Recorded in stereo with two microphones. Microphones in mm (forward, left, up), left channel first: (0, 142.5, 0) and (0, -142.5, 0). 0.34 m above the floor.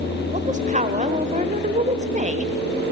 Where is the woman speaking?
25° right (ahead or behind), 1.0 m.